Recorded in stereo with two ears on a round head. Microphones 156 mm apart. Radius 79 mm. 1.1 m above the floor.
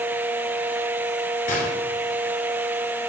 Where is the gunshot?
50° left (ahead or behind), 7.5 m.